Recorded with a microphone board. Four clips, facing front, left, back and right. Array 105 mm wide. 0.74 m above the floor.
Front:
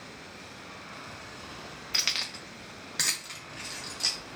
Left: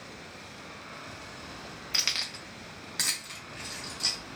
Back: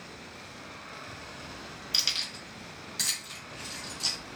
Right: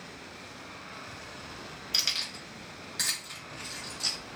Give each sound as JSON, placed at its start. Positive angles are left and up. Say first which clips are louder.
{"t": 1.9, "sound": "keys jangling", "louder": "left 3 dB, front 5 dB", "azimuth_deg": 40, "distance_m": 0.6}